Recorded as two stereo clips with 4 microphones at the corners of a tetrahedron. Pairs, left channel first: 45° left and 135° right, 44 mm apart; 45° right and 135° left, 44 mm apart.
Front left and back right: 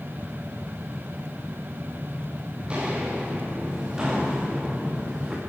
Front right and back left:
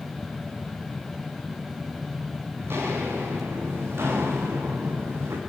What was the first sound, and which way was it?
Footsteps, 160° left.